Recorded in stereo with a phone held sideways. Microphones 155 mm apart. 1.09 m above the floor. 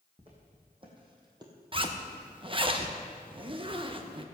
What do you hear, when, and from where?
0.2 s footsteps: 35° right (ahead or behind), 3.5 m; by 1.5 s 25° right (ahead or behind), 2.0 m
1.7 s a zipper: 35° right (ahead or behind), 0.9 m